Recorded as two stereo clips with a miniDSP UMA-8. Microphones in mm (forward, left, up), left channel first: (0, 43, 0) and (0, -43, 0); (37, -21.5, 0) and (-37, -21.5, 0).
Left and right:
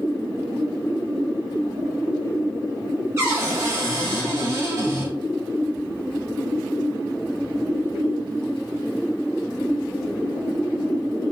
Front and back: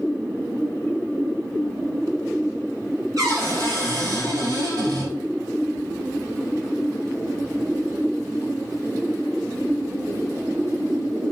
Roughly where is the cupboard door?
Behind right.